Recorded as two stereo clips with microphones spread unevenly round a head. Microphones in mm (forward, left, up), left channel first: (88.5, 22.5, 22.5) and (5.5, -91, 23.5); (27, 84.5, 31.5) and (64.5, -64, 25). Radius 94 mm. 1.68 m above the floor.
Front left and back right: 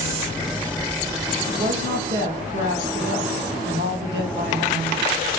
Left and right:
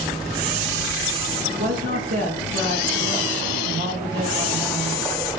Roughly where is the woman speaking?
Behind right.